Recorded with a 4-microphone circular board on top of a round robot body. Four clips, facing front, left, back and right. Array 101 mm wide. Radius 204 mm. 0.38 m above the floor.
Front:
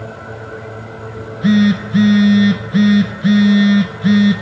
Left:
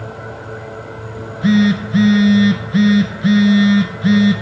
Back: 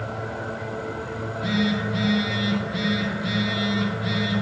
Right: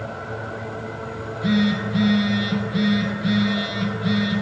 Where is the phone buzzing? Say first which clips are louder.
Left 7 dB, front 13 dB; 50° left, 1.3 m.